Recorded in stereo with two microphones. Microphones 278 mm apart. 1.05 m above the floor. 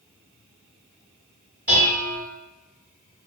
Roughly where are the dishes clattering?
Right.